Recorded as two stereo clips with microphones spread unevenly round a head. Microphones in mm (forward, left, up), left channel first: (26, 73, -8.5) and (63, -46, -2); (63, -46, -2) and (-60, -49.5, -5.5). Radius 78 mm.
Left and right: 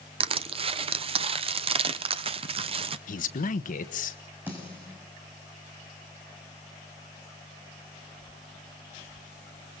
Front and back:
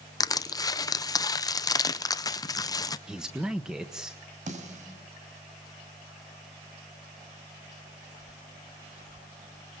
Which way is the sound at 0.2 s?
50° right.